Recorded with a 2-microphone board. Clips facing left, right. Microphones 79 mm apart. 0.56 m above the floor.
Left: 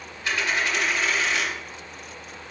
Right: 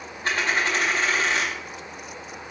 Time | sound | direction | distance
0.2 | a dropped coin | 40° right (ahead or behind) | 0.7 m